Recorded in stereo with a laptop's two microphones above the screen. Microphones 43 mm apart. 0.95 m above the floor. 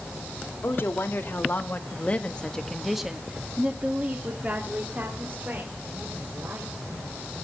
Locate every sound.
0.6 s a woman speaking: 70° left (ahead or behind), 2 m; by 7.4 s 60° right (ahead or behind), 5 m